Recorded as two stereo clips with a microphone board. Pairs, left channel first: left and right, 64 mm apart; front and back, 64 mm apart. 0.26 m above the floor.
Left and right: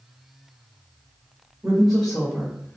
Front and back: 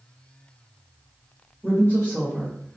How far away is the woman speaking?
About 1.9 m.